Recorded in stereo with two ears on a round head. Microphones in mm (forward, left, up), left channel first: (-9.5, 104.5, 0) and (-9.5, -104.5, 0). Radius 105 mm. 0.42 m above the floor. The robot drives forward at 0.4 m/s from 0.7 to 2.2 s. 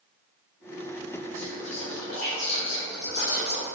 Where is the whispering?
45° left (ahead or behind), 1.1 m; by 3.7 s 50° left (ahead or behind), 1.1 m.